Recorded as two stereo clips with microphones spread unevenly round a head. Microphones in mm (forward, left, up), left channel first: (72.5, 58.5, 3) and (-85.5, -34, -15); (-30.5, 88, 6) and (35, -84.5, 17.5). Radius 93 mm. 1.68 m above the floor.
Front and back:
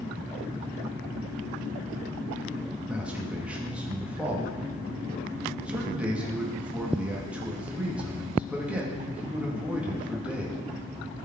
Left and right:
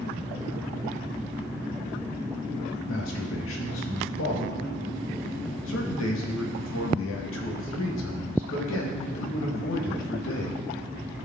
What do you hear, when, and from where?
2.9 s a man speaking: 125° left, 2 m